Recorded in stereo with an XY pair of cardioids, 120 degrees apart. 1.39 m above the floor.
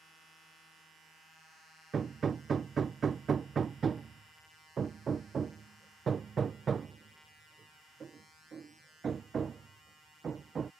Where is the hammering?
30° right.